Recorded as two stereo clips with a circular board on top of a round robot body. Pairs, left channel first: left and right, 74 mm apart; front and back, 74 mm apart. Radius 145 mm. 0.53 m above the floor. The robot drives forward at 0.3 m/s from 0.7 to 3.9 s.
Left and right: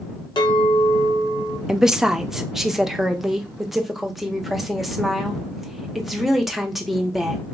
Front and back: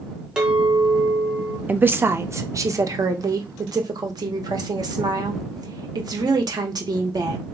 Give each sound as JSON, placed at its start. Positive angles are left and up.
{"t": 0.4, "sound": "a clink", "azimuth_deg": 100, "distance_m": 1.1}
{"t": 1.7, "sound": "a woman speaking", "azimuth_deg": -160, "distance_m": 0.6}